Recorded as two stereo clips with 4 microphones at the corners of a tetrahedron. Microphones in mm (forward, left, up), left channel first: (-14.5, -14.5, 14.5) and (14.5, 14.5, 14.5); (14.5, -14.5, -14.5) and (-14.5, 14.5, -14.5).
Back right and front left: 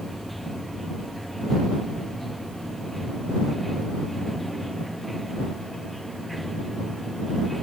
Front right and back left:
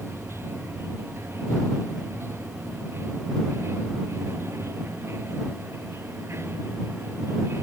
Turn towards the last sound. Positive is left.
turn(degrees=135)